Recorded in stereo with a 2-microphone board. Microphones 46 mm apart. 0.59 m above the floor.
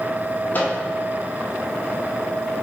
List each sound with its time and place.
0.5 s a microwave: 45° left (ahead or behind), 0.8 m